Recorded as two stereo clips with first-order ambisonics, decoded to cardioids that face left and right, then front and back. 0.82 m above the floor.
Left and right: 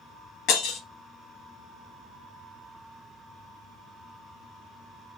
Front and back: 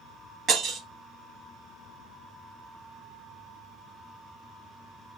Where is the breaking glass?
125° left, 1.6 m.